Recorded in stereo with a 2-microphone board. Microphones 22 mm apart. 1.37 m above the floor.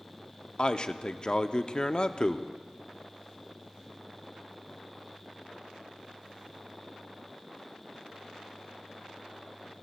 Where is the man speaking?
40° left (ahead or behind), 0.6 m.